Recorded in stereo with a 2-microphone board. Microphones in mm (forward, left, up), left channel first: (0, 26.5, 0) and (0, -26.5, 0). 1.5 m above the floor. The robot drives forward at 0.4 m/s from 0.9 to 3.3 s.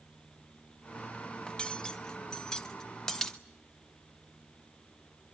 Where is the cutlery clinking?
15° left (ahead or behind), 0.7 m; by 3.4 s 10° left (ahead or behind), 1.2 m.